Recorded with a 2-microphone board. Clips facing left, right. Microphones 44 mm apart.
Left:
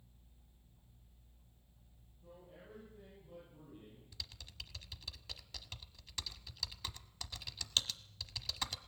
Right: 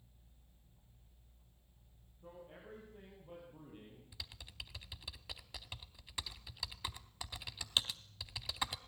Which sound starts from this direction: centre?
Typing on a keyboard, at 4.1 s.